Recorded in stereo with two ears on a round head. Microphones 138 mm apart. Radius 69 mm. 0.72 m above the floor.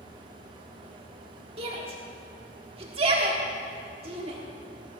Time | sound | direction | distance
1.6 | a shout | 35° right (ahead or behind) | 1.6 m